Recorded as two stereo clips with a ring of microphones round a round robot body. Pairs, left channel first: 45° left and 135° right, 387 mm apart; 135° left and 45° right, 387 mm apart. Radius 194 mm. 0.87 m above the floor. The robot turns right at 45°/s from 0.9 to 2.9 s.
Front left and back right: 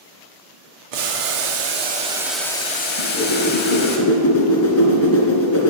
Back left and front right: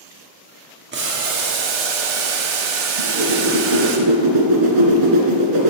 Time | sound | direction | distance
0.9 | boiling | 110° right | 1.6 m
3.0 | a whoosh | 10° right | 2.5 m